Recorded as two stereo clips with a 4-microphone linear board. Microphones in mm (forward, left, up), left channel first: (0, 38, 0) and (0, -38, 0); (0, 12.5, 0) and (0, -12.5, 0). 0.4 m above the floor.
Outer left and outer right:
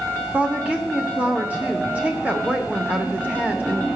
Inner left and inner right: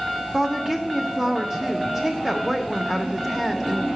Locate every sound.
0.3 s a woman speaking: 20° right (ahead or behind), 0.7 m